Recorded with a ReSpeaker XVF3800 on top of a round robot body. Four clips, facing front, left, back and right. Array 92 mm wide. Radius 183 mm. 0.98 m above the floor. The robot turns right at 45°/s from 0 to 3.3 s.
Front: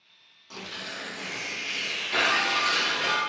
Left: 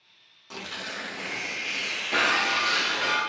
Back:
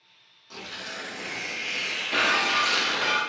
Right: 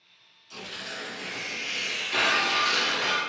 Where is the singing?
No singing in this recording.